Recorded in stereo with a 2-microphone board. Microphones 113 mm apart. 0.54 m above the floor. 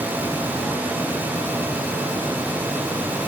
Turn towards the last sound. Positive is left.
No sound to turn to.